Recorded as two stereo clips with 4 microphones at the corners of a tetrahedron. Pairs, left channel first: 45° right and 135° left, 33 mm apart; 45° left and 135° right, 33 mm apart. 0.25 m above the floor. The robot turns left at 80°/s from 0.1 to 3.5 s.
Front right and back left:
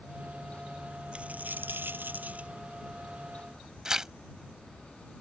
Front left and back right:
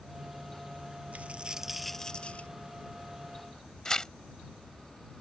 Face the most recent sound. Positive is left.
turn(degrees=90)